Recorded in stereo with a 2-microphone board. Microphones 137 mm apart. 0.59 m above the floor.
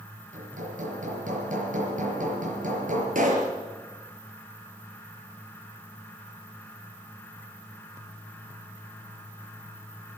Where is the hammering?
70° right (ahead or behind), 5.5 m.